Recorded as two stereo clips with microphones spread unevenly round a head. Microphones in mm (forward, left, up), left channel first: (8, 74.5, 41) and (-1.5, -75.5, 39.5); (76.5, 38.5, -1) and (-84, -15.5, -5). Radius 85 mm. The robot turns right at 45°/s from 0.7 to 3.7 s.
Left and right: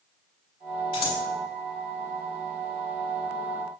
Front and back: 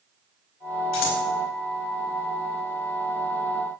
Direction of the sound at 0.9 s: 25° left.